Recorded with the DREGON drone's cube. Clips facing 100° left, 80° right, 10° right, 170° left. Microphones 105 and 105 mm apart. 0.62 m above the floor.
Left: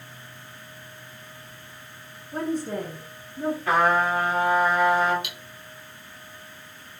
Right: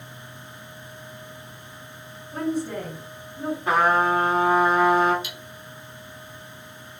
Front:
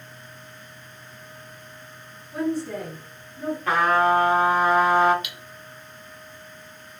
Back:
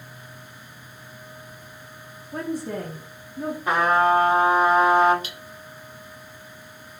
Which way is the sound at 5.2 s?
120° left.